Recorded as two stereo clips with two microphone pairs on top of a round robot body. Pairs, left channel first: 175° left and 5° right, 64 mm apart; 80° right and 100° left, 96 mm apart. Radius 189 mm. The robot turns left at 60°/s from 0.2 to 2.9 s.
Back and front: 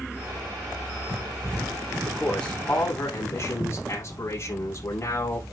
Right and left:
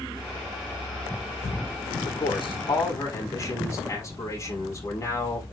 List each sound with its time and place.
2.0 s a man speaking: 90° right, 7.5 m; by 5.4 s 140° right, 7.5 m